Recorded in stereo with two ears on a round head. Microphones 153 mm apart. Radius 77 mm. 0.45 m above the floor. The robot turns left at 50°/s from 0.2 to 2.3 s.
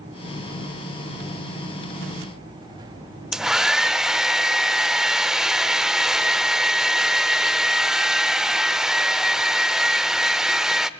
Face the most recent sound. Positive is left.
turn(degrees=-5)  # may be behind; listen again after turning